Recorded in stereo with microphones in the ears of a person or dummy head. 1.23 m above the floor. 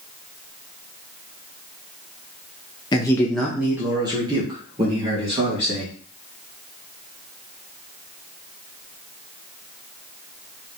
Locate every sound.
2.9 s a man speaking: 20° left (ahead or behind), 0.6 m; by 5.9 s 35° right (ahead or behind), 2.0 m